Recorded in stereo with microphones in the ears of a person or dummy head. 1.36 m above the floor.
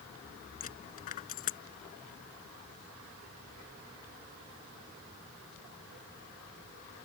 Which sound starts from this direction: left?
A dropped coin, at 0.6 s.